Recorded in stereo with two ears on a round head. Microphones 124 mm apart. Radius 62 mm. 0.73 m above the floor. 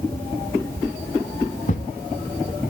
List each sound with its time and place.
1.7 s a thud: 55° left (ahead or behind), 0.9 m